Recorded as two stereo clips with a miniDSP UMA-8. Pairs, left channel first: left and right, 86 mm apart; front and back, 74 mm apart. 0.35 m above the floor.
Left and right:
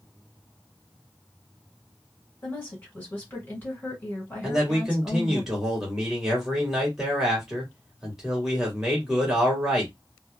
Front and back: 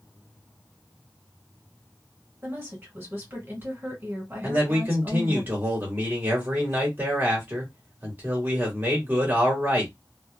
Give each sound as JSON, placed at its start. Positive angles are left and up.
{"t": 2.4, "sound": "a woman speaking", "azimuth_deg": 145, "distance_m": 1.8}
{"t": 4.4, "sound": "a man speaking", "azimuth_deg": -170, "distance_m": 1.5}